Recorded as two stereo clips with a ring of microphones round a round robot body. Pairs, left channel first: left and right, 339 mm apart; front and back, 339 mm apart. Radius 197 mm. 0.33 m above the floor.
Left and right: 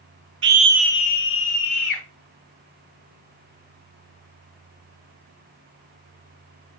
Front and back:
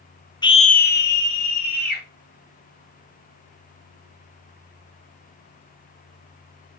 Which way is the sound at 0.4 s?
70° right.